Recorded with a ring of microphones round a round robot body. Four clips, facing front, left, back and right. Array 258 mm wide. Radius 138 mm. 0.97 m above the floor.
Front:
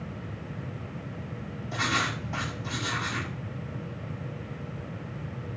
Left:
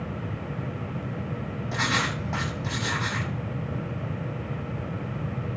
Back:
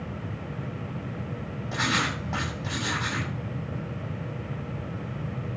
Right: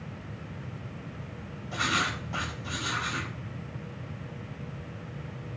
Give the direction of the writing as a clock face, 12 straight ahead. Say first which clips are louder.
Left 2 dB, back 1 dB; 8 o'clock.